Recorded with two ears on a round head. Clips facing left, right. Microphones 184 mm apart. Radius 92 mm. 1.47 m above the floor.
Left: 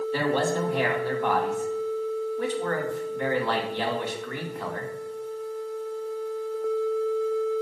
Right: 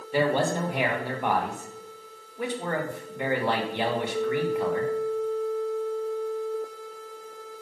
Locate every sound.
0.1 s a man speaking: 15° right (ahead or behind), 2 m